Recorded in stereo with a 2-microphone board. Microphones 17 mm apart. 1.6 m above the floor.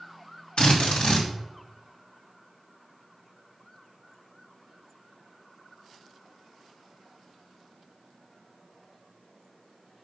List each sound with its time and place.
0.6 s a drill: 70° left (ahead or behind), 3 m